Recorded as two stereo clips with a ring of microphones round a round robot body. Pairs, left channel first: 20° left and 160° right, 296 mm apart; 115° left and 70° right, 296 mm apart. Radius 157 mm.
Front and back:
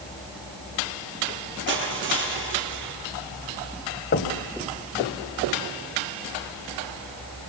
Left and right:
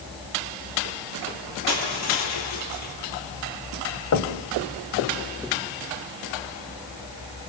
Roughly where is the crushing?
Behind left.